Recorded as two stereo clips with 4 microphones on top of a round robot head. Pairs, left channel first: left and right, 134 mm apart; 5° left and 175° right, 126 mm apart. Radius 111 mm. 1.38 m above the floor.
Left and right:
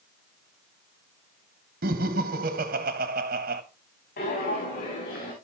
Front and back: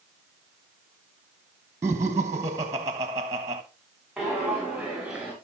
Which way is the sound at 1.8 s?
100° right.